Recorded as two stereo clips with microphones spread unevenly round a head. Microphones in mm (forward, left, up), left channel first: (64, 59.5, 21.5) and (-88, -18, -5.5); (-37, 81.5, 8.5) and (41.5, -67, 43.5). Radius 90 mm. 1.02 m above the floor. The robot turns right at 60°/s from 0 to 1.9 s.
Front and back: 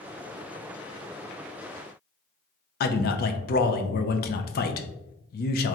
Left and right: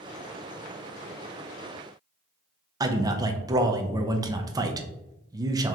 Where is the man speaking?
10° left, 0.5 m.